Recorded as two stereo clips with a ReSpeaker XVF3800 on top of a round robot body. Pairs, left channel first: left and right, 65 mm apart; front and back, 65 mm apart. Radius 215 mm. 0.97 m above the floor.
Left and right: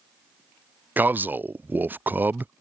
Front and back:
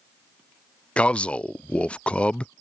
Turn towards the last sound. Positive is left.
turn(degrees=-60)